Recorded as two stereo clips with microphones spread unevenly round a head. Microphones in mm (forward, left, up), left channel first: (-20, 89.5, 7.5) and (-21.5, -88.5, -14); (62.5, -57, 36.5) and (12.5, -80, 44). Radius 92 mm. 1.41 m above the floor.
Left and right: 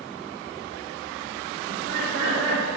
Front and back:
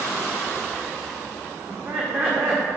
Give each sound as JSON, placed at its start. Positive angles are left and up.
{"t": 1.7, "sound": "laughter", "azimuth_deg": -105, "distance_m": 1.9}